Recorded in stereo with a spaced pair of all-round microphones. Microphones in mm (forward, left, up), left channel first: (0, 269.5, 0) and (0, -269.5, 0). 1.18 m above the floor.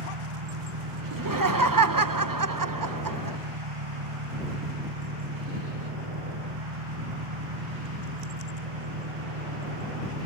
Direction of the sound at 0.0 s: 70° right (ahead or behind).